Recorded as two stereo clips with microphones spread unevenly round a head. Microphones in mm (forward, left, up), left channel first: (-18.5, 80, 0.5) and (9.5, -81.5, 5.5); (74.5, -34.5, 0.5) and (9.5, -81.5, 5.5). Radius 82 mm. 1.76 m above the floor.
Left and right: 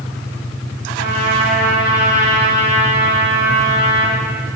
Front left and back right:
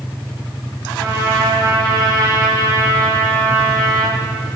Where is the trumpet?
120° right, 2.5 m.